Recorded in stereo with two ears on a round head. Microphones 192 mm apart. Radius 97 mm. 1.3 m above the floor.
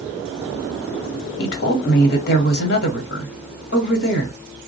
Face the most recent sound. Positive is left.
turn(degrees=50)  # may be behind; listen again after turning